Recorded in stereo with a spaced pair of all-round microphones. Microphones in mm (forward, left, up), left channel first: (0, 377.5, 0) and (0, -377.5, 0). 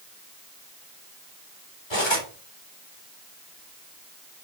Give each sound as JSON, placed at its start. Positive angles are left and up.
{"t": 1.9, "sound": "cutlery clinking", "side_deg": 35, "distance_m": 3.5}